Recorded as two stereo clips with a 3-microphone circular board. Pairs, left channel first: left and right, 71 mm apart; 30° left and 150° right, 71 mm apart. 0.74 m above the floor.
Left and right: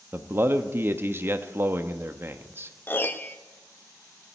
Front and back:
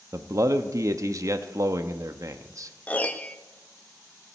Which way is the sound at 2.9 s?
75° left.